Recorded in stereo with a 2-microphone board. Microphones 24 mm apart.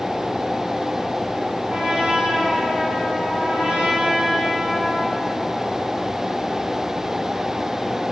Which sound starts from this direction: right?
A trumpet, at 1.7 s.